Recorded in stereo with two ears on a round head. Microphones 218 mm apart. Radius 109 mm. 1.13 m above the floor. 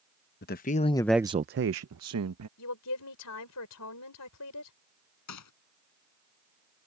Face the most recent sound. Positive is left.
turn(degrees=80)